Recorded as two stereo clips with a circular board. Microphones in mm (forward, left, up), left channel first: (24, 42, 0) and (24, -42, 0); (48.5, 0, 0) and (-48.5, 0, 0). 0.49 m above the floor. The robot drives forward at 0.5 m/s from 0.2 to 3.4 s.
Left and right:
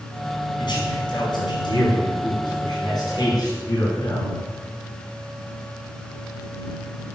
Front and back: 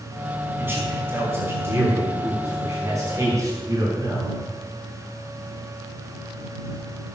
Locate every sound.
0.6 s a man speaking: 110° left, 5 m; by 4.3 s 125° left, 5.5 m